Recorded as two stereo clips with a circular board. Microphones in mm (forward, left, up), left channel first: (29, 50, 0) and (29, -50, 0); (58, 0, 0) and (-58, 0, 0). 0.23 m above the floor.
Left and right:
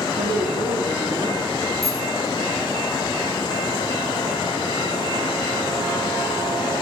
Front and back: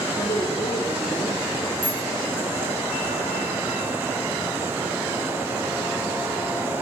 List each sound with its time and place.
0.2 s a woman speaking: 65° right, 7.5 m
1.8 s a bicycle bell: 145° right, 5 m